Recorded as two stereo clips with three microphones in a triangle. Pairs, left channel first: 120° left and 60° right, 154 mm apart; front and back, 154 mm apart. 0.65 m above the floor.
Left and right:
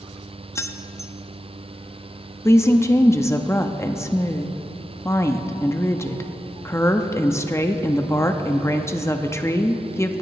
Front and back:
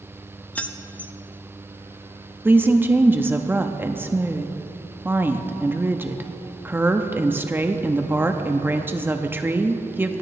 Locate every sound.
0.6 s keys jangling: 70° left, 0.6 m
2.5 s a woman speaking: 140° left, 0.7 m